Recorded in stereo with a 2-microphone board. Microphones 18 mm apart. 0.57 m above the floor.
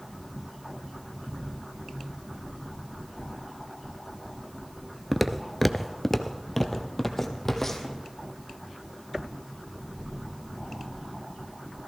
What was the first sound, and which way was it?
Footsteps, 10° right (ahead or behind).